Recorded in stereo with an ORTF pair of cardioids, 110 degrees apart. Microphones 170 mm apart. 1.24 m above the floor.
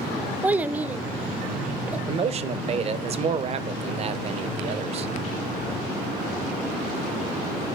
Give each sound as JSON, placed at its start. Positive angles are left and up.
{"t": 0.4, "sound": "a child speaking", "azimuth_deg": -10, "distance_m": 0.6}
{"t": 2.1, "sound": "a man speaking", "azimuth_deg": -40, "distance_m": 0.8}